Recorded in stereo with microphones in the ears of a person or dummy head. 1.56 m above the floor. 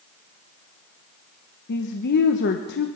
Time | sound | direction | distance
1.7 | a woman speaking | 55° left (ahead or behind) | 1.1 m